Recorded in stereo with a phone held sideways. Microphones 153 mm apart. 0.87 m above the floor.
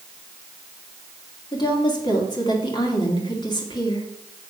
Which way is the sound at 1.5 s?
25° left (ahead or behind).